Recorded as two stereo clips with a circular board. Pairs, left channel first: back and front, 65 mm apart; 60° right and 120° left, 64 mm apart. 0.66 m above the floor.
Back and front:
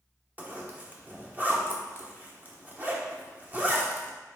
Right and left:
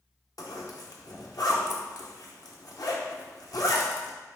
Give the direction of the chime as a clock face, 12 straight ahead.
No chime in this recording.